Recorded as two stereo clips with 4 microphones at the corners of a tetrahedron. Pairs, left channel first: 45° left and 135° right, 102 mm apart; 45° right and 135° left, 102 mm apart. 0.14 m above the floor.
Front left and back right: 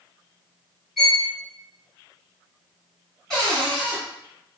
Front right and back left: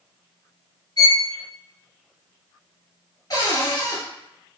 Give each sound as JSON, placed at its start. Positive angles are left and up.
{"t": 1.0, "sound": "a violin", "azimuth_deg": -45, "distance_m": 1.3}
{"t": 3.3, "sound": "a cupboard door", "azimuth_deg": -35, "distance_m": 1.6}